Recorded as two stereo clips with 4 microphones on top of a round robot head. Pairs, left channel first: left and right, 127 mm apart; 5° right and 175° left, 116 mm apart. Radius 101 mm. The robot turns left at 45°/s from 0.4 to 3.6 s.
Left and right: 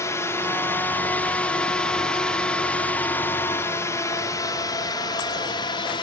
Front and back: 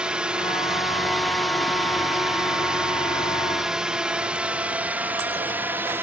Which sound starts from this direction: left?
A drone, at 0.0 s.